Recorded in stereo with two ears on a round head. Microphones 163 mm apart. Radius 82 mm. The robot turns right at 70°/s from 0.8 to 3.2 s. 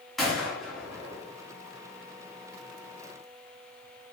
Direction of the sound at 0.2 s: Centre (ahead or behind).